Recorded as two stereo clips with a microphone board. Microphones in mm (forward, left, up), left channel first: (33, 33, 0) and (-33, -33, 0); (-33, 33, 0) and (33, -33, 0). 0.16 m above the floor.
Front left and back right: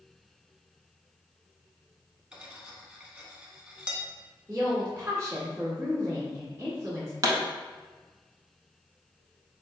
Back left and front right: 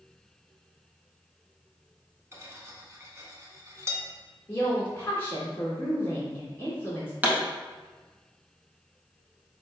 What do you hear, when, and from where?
2.3 s cutlery clinking: 65° right, 0.8 m
4.5 s a woman speaking: 175° right, 1.9 m
7.2 s a pop: 110° right, 0.7 m